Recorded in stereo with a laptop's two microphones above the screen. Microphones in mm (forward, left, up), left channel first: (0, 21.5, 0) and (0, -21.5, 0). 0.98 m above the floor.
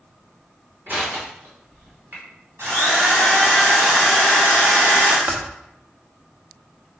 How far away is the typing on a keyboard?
About 1.0 m.